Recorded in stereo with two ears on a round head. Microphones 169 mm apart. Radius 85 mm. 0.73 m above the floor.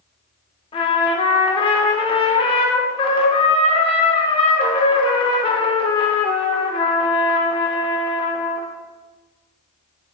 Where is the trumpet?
30° left (ahead or behind), 0.6 m.